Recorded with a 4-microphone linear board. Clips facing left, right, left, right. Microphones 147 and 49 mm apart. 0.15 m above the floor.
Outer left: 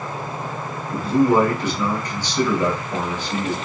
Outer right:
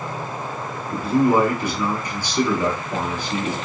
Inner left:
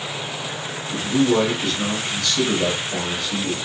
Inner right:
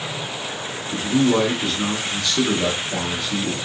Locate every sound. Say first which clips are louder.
0.9 s a man speaking: outer left 1 dB, even; 15° right (ahead or behind), 1.0 m